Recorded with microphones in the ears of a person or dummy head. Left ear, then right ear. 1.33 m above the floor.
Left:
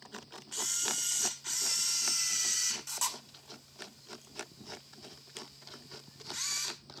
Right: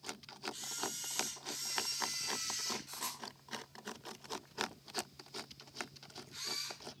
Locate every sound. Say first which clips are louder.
0.5 s a camera shutter: left 11 dB; 50° left (ahead or behind), 3 m